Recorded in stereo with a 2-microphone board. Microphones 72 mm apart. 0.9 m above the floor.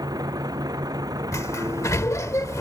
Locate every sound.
0.0 s a vehicle: 60° right (ahead or behind)
1.3 s a sliding door: 45° left (ahead or behind)